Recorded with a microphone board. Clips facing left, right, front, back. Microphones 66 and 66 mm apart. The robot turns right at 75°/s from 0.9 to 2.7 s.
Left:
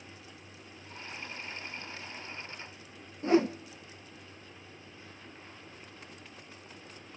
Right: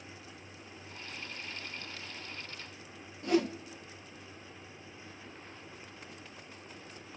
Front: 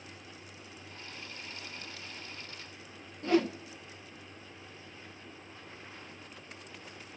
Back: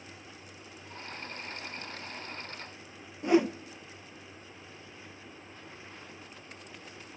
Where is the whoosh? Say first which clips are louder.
Left 4 dB, back 3 dB; 120° left, 0.9 m.